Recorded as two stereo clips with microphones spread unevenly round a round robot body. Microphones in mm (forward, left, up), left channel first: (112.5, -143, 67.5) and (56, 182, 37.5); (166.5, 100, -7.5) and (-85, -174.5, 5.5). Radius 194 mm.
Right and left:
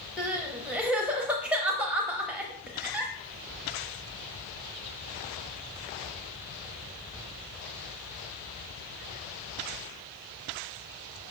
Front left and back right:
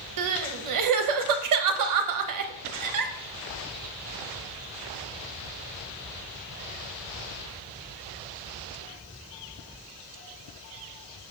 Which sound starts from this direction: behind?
Crying, at 0.2 s.